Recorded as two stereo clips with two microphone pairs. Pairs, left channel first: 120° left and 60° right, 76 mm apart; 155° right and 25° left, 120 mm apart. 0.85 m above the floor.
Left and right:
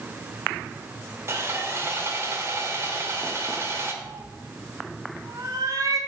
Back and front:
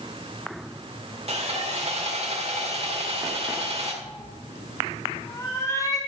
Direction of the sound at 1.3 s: 5° right.